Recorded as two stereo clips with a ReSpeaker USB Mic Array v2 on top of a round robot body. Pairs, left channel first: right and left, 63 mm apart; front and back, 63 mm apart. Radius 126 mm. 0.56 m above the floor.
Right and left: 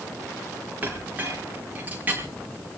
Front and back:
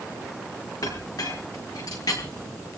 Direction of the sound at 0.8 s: 25° left.